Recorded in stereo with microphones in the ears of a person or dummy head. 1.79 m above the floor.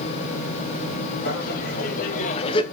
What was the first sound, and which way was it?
Laughter, 55° left (ahead or behind).